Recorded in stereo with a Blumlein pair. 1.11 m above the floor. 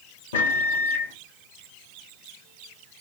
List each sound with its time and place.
0.3 s a microwave: 60° left, 1.0 m